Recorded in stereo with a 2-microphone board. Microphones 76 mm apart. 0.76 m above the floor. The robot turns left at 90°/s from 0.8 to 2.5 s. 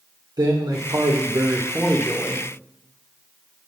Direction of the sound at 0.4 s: 70° right.